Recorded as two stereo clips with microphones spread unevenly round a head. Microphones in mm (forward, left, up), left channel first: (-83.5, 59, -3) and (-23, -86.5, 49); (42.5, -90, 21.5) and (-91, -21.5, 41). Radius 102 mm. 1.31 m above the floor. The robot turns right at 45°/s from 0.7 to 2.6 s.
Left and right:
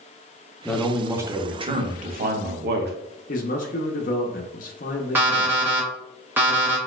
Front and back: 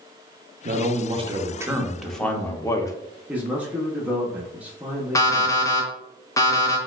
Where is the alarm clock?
95° right, 0.7 m.